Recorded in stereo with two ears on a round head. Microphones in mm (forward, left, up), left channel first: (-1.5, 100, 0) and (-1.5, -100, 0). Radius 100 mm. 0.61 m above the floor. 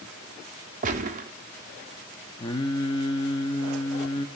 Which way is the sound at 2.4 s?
20° left (ahead or behind).